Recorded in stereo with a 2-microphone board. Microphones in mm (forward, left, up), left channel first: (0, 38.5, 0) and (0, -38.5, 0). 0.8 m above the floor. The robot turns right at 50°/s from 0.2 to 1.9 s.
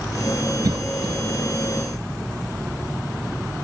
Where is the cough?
55° right (ahead or behind), 0.7 m; by 1.2 s 60° right (ahead or behind), 0.7 m.